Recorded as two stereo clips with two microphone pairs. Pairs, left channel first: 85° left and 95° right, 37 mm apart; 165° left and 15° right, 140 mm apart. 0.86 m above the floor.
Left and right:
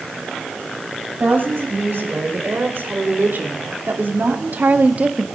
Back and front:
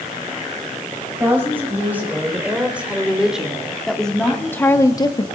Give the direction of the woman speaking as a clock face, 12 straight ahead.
3 o'clock.